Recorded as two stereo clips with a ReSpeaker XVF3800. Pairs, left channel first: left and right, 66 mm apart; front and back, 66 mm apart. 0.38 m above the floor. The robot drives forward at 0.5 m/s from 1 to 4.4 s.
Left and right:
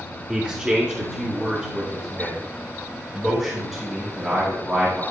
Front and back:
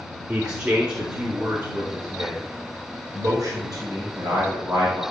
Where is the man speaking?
130° right, 1.1 m; by 5.0 s 170° right, 2 m.